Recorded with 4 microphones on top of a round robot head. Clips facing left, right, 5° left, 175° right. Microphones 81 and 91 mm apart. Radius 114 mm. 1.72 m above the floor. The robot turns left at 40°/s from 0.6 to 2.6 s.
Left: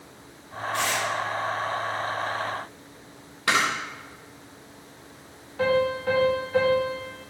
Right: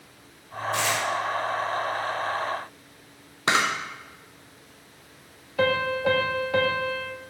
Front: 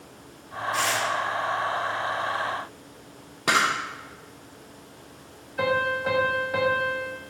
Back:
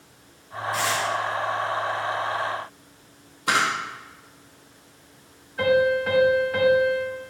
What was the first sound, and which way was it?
Tearing paper, 85° right.